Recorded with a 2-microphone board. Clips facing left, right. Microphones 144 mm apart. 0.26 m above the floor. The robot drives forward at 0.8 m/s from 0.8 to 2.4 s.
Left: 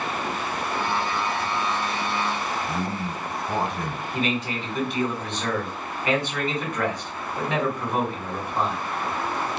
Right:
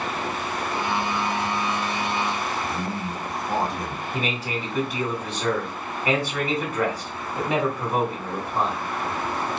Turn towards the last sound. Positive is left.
turn(degrees=-5)  # may be behind; listen again after turning